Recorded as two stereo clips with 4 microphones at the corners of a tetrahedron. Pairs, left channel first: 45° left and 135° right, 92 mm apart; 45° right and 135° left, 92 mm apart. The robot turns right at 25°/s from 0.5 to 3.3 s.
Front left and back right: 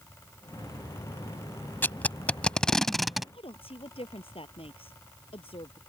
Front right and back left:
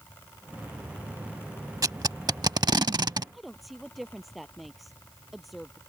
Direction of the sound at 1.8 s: 105° left.